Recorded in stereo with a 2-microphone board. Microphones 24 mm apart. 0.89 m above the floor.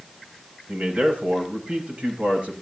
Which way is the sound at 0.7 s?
60° right (ahead or behind).